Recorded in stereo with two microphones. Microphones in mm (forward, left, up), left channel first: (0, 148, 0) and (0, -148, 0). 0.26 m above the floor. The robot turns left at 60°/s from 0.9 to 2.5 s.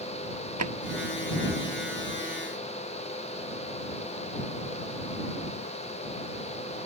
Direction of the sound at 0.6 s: 70° right (ahead or behind).